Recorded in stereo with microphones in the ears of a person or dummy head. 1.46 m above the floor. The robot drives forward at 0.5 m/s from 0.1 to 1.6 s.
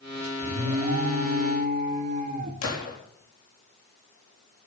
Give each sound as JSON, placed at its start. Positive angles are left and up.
{"t": 0.4, "sound": "an alarm", "side_deg": -55, "distance_m": 2.0}
{"t": 2.6, "sound": "a gunshot", "side_deg": 75, "distance_m": 3.5}